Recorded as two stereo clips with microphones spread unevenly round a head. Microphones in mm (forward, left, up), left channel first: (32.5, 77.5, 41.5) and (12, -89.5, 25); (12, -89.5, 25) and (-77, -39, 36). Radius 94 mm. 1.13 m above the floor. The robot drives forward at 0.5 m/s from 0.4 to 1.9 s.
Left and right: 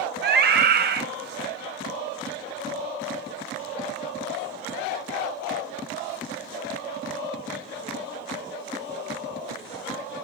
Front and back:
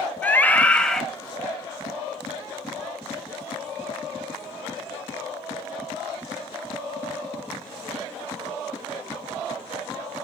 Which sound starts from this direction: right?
A scream, at 0.2 s.